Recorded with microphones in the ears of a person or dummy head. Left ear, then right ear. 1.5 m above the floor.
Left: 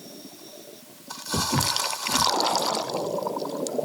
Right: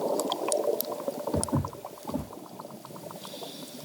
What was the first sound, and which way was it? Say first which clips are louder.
Footsteps: left 7 dB; 15° left (ahead or behind).